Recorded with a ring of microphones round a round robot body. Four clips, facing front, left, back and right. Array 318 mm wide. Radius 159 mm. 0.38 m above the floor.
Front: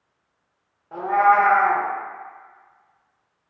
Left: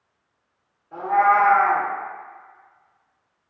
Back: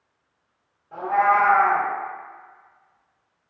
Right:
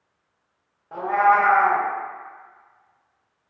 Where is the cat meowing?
60° right, 0.5 m.